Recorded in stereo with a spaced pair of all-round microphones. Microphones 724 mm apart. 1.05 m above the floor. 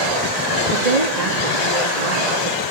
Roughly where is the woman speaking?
Right.